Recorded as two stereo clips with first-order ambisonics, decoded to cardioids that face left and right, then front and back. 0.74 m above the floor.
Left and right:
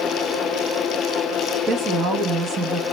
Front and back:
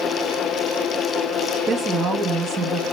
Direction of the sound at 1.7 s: 125° right.